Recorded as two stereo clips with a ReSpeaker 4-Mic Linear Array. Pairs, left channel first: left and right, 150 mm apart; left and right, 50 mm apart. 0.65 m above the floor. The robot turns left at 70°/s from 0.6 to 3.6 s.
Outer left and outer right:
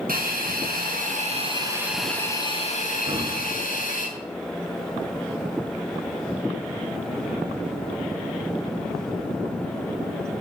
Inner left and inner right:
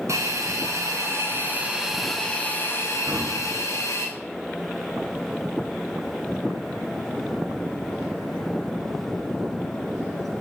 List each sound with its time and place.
0.1 s a hiss: 80° right, 5 m; by 4.1 s 70° left, 5 m
3.1 s breathing: 40° right (ahead or behind), 1.7 m; by 3.5 s 10° right (ahead or behind), 1.7 m